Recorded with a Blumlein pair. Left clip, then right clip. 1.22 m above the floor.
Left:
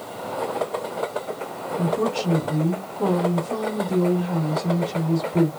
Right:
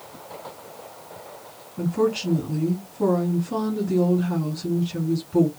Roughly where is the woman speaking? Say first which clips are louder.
Right 1 dB; right.